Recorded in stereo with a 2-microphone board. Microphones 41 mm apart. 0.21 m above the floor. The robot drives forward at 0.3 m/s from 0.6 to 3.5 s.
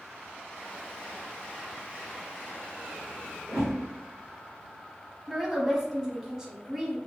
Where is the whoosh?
Centre (ahead or behind), 1.9 m.